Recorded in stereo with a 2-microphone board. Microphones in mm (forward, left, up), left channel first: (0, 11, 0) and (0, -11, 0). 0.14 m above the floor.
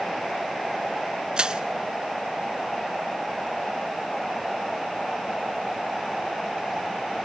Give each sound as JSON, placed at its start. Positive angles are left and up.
{"t": 1.4, "sound": "crushing", "side_deg": -35, "distance_m": 0.7}